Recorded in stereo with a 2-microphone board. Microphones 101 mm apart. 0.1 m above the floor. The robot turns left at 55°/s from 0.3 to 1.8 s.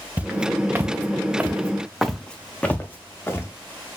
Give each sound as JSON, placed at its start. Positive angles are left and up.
{"t": 0.2, "sound": "footsteps", "side_deg": -15, "distance_m": 0.9}